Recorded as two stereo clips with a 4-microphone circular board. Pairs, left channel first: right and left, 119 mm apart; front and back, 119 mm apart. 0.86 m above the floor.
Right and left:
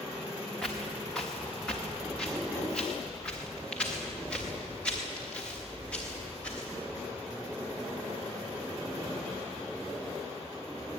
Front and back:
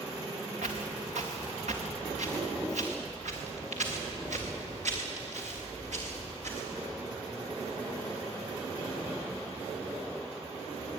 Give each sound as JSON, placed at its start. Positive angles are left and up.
{"t": 0.6, "sound": "footsteps", "azimuth_deg": -175, "distance_m": 4.0}